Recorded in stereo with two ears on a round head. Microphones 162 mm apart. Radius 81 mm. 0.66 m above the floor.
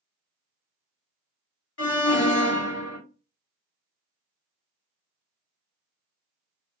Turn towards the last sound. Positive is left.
turn(degrees=70)  # may be behind; listen again after turning